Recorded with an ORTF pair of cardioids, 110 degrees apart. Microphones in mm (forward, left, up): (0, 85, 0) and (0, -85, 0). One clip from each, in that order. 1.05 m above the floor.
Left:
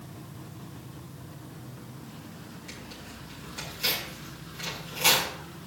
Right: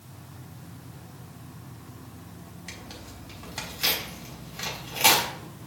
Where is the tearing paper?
55° right, 4.5 m.